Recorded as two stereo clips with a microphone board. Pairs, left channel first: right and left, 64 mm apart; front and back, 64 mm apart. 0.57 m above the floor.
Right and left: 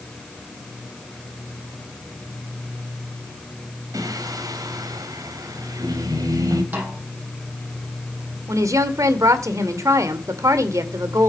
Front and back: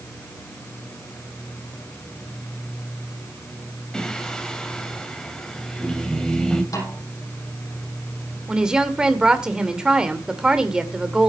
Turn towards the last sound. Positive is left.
turn(degrees=105)